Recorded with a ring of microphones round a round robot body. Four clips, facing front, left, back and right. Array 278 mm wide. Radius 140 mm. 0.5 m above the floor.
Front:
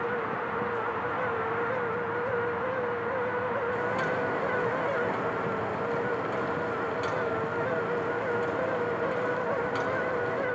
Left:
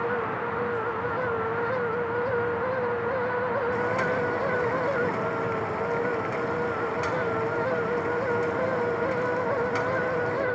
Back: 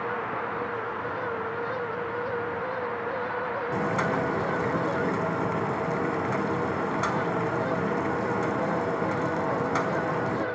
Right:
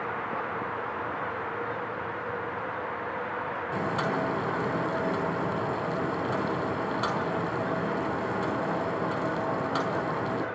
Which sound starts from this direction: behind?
Boiling, at 3.7 s.